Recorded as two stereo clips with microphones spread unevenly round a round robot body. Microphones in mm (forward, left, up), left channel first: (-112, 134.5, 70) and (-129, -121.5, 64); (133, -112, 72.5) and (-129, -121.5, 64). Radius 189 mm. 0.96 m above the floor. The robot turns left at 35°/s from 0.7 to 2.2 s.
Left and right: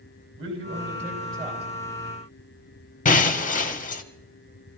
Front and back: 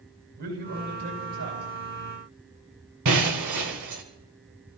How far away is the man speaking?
About 7.5 m.